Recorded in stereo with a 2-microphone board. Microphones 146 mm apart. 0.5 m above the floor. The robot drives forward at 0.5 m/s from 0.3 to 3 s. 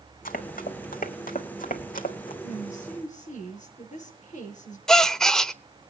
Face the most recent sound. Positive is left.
turn(degrees=5)  # may be behind; listen again after turning